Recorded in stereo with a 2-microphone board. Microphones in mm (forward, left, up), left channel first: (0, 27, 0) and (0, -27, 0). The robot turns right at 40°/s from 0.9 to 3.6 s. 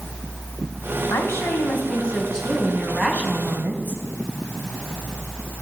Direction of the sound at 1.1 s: 120° left.